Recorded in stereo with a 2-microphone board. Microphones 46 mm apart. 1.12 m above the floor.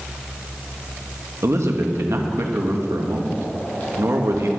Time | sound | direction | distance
1.4 | a man speaking | 75° right (ahead or behind) | 1.3 m